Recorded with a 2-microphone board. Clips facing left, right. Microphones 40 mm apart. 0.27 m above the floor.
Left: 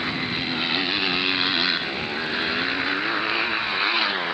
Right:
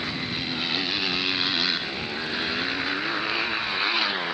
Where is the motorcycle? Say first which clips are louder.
Left 4 dB; 20° left (ahead or behind); by 4.3 s 10° left (ahead or behind).